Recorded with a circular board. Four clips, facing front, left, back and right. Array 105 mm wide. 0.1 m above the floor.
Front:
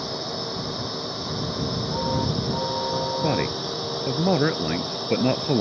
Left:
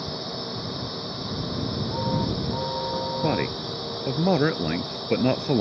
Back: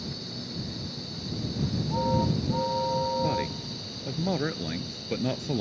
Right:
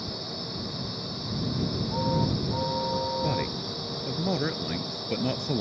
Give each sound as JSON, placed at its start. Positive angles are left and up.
{"t": 0.0, "sound": "a drone", "azimuth_deg": 20}
{"t": 3.2, "sound": "a man speaking", "azimuth_deg": 45}